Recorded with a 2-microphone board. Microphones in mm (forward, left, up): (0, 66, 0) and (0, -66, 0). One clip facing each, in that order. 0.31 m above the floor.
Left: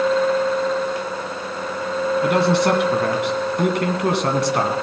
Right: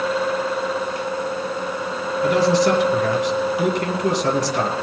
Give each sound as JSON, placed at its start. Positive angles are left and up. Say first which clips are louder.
{"t": 2.2, "sound": "a man speaking", "louder": "right 2 dB", "side_deg": 60, "distance_m": 2.0}